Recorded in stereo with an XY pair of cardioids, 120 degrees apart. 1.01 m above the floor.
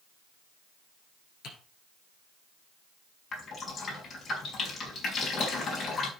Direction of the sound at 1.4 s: 65° left.